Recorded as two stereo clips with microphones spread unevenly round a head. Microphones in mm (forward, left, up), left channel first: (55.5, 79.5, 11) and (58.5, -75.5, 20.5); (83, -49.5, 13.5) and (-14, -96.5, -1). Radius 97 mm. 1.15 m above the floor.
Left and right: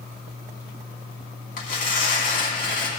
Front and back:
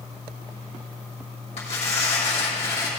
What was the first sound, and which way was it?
Tearing paper, 65° left.